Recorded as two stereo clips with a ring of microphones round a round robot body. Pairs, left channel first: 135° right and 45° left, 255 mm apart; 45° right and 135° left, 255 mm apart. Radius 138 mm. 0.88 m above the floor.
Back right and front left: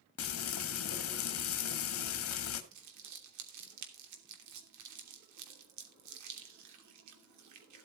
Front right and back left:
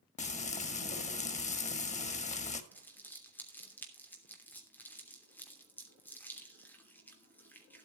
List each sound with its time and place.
0.2 s frying: 105° right, 1.7 m
2.7 s crumpling: 40° left, 3 m